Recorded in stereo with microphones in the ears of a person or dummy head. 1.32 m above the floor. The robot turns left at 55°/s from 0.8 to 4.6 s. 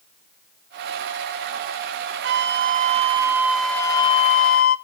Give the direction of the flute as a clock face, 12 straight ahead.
3 o'clock.